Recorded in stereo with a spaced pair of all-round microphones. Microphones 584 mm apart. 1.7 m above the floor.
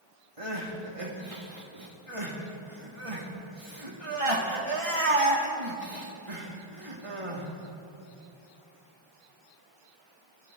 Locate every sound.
0.4 s crying: 65° right (ahead or behind), 2 m